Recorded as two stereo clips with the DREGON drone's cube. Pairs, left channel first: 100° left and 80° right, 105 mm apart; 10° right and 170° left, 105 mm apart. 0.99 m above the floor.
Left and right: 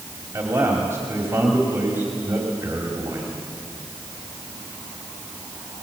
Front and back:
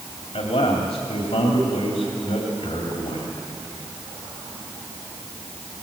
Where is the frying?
No frying in this recording.